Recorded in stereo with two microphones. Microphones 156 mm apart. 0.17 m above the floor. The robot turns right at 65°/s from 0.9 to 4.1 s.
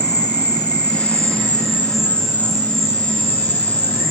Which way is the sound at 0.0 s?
90° left.